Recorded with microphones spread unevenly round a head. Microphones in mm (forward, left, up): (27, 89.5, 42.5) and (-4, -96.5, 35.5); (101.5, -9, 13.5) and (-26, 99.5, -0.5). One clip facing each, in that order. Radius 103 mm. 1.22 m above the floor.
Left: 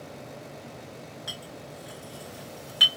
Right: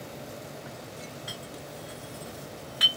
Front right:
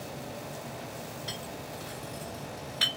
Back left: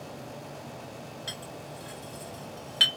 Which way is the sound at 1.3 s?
140° left.